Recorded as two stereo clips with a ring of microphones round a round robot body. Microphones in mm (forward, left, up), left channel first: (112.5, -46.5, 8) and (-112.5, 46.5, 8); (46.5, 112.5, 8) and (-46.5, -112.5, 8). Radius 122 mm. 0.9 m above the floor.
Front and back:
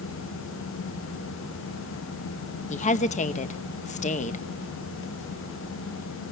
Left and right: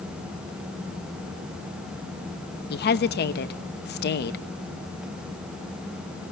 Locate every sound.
2.7 s a woman speaking: 30° left, 1.0 m